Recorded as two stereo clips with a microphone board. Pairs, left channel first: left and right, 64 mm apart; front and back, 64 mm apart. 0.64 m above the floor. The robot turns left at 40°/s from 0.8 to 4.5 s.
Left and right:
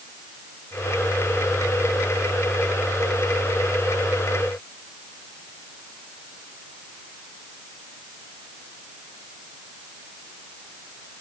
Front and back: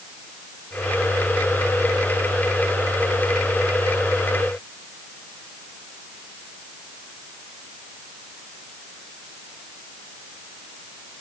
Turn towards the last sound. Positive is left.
No sound to turn to.